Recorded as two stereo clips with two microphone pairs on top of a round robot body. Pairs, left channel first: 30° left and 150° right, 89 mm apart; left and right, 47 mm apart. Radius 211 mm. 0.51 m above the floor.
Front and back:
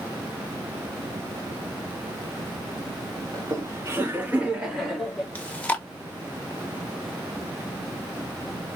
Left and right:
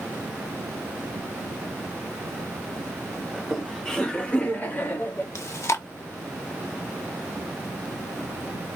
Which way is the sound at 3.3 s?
175° right.